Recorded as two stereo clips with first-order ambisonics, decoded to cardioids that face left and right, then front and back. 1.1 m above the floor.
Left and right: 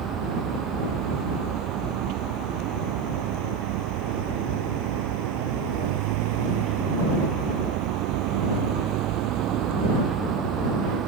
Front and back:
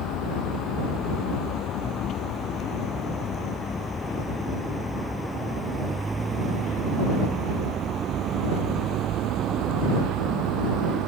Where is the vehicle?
40° right; by 11.1 s 140° right.